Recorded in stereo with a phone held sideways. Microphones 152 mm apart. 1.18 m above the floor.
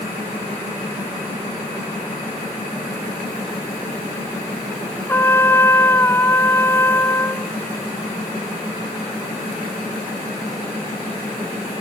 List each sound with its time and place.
5.1 s a trumpet: 15° left (ahead or behind)